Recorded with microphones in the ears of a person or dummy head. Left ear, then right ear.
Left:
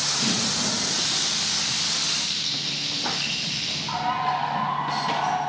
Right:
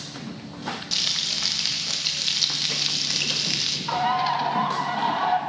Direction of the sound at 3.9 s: 35° right (ahead or behind).